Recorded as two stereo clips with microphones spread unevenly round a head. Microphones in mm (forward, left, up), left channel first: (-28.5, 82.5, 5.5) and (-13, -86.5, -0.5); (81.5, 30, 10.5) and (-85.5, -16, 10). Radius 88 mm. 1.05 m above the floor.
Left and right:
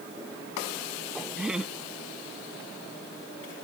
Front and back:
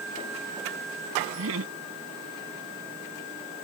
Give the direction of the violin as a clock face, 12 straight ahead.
I don't hear a violin.